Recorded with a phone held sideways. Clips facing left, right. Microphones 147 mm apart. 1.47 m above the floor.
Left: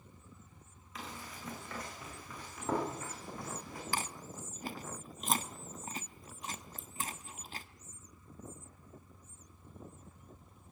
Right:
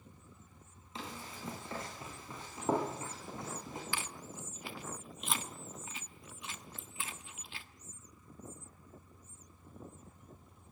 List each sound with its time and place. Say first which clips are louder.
0.9 s running footsteps: right 1 dB; 25° right (ahead or behind), 8 m; by 3.8 s 20° right (ahead or behind), 6.5 m
3.9 s chewing: left 3 dB; 40° left (ahead or behind), 1.1 m